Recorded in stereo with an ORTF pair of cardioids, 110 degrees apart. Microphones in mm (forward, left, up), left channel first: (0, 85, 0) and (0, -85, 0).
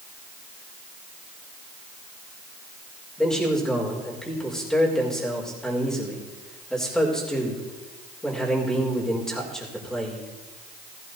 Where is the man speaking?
5° left, 5 m.